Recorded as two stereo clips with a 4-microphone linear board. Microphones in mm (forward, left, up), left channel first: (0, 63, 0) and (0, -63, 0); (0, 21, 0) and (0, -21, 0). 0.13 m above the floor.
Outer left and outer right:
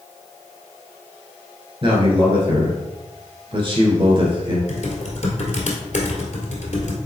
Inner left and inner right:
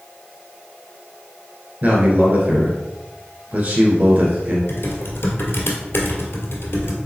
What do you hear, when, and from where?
1.8 s a man speaking: 40° right (ahead or behind), 1.7 m
4.7 s typing on a keyboard: 65° left (ahead or behind), 1.3 m